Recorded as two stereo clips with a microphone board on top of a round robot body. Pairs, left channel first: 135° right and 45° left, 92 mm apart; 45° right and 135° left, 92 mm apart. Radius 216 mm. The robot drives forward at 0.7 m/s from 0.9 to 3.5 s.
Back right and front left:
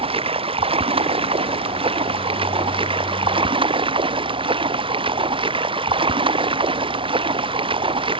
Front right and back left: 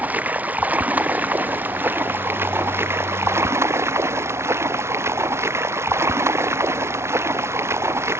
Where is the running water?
60° left; by 8.2 s 70° left.